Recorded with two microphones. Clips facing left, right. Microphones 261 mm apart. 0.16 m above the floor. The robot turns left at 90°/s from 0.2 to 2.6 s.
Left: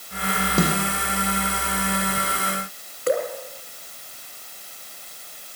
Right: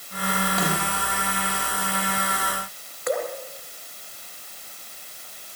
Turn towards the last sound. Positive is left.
turn(degrees=35)  # may be behind; listen again after turning